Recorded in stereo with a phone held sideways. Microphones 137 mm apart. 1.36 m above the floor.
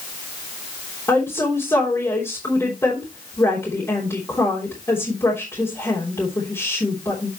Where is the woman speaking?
20° left (ahead or behind), 3 m.